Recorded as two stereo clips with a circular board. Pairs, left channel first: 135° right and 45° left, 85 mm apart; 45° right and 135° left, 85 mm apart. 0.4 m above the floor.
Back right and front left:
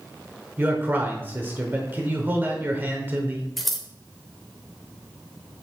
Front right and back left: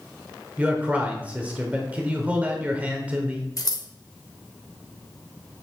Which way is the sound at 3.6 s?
50° right.